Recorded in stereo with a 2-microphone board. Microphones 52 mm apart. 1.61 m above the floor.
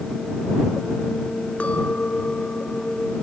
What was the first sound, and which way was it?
A clink, 25° left (ahead or behind).